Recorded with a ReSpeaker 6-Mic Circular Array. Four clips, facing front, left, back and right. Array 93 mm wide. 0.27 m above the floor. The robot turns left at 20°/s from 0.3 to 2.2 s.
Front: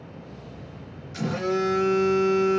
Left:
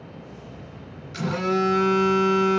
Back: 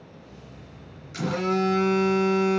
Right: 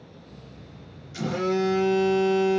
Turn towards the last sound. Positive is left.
turn(degrees=105)